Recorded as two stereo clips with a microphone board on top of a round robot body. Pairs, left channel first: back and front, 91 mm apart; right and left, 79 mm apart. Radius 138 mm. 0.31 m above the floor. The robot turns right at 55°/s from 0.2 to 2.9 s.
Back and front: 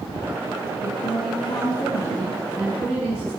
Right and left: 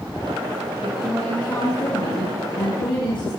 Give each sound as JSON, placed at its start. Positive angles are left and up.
{"t": 0.8, "sound": "a woman speaking", "azimuth_deg": 165, "distance_m": 7.5}